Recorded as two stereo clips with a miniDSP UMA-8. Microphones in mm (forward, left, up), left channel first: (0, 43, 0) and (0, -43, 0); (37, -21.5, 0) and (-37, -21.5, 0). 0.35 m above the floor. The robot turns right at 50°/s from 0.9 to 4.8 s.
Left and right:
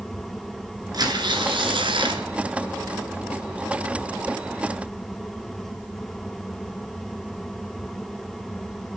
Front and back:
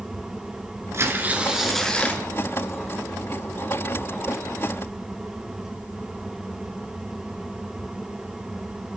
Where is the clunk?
I don't hear a clunk.